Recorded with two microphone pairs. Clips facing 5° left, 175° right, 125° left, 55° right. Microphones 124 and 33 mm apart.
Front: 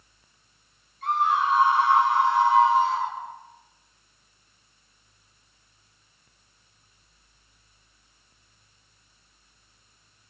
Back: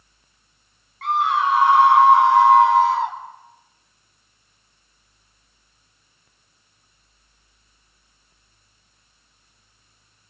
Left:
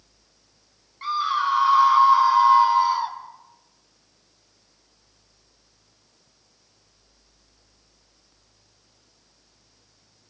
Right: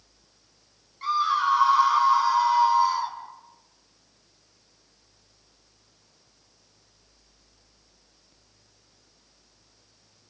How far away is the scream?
About 3.5 m.